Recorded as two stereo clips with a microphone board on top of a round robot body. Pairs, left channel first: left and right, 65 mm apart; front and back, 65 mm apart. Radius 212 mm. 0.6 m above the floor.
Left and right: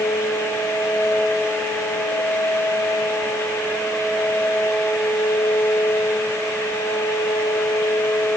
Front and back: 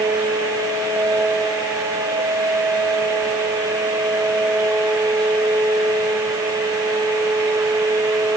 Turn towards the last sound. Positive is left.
No sound to turn to.